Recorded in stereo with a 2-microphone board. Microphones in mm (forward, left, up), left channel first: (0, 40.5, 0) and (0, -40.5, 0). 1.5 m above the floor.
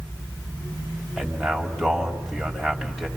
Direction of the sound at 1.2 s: 5° right (ahead or behind).